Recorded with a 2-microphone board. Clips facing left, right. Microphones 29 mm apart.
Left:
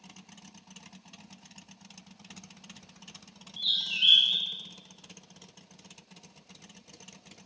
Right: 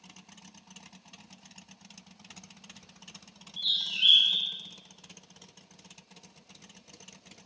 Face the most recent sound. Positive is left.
turn(degrees=-5)  # may be behind; listen again after turning